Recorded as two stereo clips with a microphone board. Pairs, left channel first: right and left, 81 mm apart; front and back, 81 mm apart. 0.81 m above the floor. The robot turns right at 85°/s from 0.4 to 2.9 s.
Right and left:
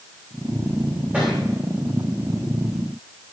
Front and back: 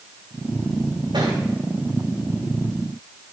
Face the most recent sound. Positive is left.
turn(degrees=-50)